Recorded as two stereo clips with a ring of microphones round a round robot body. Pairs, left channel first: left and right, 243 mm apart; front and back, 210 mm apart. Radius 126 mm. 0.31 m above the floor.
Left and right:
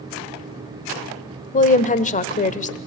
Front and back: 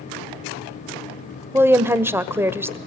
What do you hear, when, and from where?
1.5 s a woman speaking: 110° left, 1.1 m